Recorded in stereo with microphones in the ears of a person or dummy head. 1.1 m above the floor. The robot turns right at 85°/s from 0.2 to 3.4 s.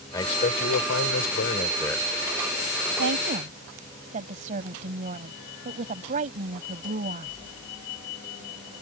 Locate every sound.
0.1 s a man speaking: 25° left; by 2.1 s 175° right
3.0 s a woman speaking: 80° right; by 7.3 s 45° right